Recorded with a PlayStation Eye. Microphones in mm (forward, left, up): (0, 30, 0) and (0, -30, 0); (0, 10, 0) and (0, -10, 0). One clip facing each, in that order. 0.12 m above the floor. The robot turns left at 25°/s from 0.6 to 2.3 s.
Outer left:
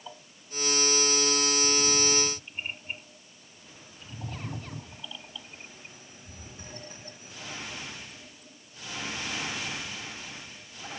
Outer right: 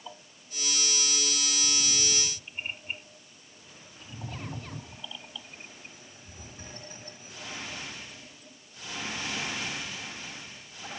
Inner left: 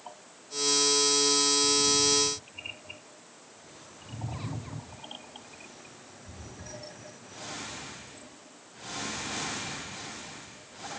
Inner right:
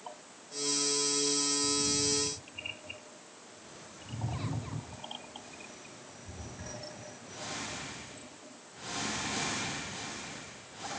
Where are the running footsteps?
No running footsteps in this recording.